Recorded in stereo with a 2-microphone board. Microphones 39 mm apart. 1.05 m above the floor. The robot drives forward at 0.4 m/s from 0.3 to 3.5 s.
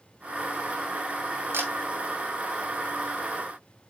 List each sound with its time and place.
1.5 s a camera shutter: 75° right (ahead or behind), 2.5 m; by 1.7 s 70° right (ahead or behind), 2.5 m